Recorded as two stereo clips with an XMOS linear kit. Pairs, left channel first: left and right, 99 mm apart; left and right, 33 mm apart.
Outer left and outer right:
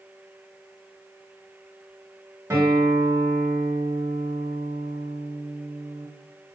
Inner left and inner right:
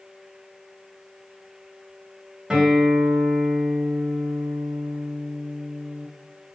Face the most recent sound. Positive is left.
turn(degrees=-25)  # may be behind; listen again after turning